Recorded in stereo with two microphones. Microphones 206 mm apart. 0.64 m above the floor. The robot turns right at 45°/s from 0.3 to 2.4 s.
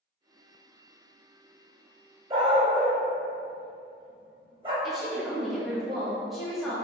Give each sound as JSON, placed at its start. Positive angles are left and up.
{"t": 2.3, "sound": "a dog barking", "side_deg": -25, "distance_m": 0.6}
{"t": 4.8, "sound": "a woman speaking", "side_deg": 0, "distance_m": 0.9}